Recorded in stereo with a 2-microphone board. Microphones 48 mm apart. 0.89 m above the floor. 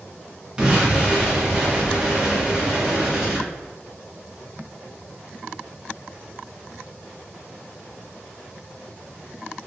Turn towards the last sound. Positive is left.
turn(degrees=-20)  # may be behind; listen again after turning